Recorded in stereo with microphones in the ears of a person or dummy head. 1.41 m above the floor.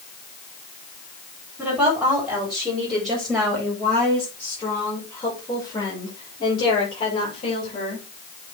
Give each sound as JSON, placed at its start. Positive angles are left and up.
{"t": 1.6, "sound": "a woman speaking", "side_deg": -10, "distance_m": 6.5}